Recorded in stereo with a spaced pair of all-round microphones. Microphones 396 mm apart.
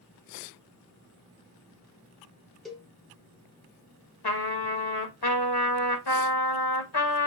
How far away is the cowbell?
About 0.9 m.